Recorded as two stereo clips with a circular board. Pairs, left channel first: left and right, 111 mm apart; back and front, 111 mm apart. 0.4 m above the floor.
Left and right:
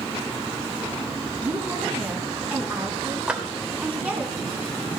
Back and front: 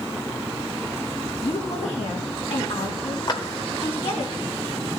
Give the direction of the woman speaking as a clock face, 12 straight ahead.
5 o'clock.